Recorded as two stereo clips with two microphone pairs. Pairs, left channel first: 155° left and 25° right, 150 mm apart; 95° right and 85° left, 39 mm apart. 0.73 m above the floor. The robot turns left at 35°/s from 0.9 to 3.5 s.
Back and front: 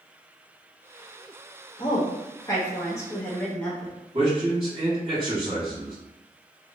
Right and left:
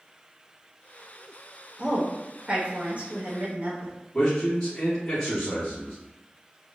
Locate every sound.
1.8 s a woman speaking: 140° left, 0.7 m; by 3.9 s 80° left, 0.7 m
4.1 s a man speaking: 35° right, 1.2 m